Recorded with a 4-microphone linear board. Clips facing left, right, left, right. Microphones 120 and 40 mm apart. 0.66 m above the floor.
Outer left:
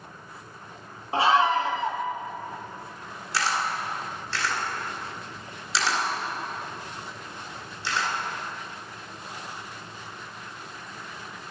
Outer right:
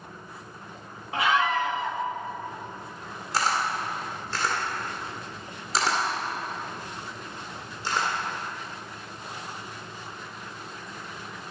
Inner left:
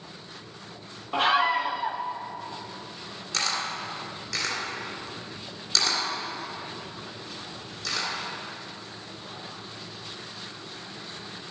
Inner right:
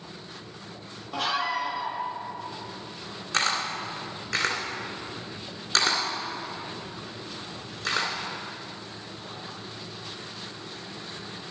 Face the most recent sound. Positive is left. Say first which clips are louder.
# outer right 1 dB, inner right 3 dB
turn(degrees=-45)  # may be behind; listen again after turning